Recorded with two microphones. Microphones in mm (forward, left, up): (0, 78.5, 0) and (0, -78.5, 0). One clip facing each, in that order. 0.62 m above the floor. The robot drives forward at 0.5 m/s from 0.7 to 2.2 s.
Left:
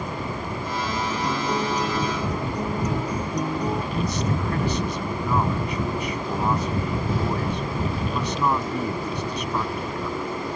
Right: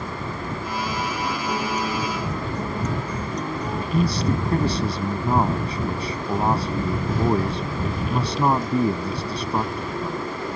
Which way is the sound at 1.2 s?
15° left (ahead or behind).